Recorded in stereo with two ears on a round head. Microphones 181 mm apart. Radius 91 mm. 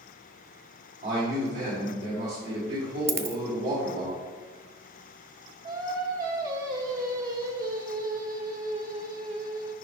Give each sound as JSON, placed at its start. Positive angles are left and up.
{"t": 1.0, "sound": "a man speaking", "side_deg": -55, "distance_m": 2.0}
{"t": 3.1, "sound": "a dropped coin", "side_deg": -15, "distance_m": 0.6}
{"t": 5.6, "sound": "singing", "side_deg": -45, "distance_m": 1.5}